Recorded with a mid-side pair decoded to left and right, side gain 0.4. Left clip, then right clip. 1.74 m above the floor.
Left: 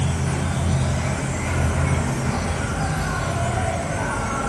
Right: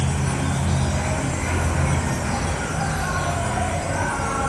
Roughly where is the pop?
I don't hear a pop.